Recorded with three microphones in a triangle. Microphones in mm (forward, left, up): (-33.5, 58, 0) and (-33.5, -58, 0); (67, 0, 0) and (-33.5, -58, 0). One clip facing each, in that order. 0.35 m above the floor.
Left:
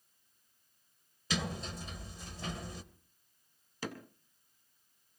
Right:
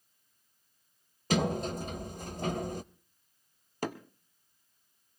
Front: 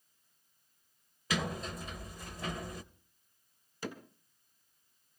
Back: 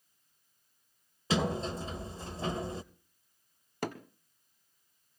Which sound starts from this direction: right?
A sliding door, at 1.3 s.